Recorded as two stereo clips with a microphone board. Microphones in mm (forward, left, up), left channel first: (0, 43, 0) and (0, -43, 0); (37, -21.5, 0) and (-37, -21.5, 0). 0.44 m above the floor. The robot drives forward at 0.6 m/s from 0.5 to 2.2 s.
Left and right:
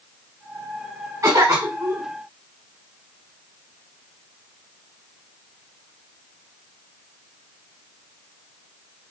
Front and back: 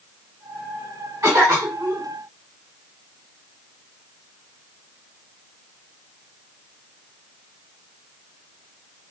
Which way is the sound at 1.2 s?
135° right.